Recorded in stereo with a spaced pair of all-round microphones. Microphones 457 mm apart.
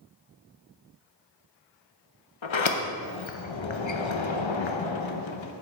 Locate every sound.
2.4 s a sliding door: 80° left, 0.6 m